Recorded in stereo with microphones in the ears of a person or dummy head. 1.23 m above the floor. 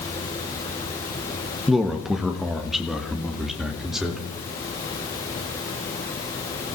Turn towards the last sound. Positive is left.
turn(degrees=-5)  # may be behind; listen again after turning